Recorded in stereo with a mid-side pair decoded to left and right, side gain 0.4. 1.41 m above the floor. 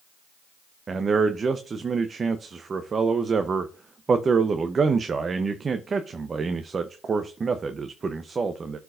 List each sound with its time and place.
0.9 s a man speaking: 45° right, 0.8 m